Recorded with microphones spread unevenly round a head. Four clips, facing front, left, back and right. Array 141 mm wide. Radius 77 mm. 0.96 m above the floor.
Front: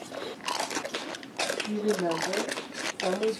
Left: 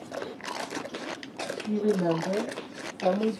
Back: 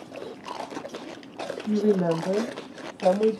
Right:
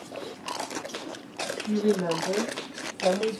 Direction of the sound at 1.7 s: 170° left.